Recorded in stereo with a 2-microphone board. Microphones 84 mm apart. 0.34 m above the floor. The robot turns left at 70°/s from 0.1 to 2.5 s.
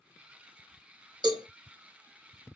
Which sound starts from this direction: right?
A cowbell, at 1.2 s.